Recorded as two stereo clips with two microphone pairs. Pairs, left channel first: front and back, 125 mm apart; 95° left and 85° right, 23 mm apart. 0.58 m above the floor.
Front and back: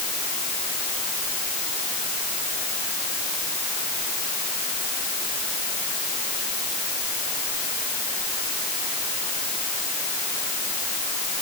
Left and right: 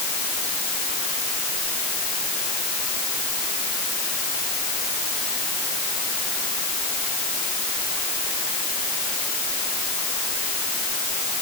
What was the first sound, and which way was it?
Only background noise.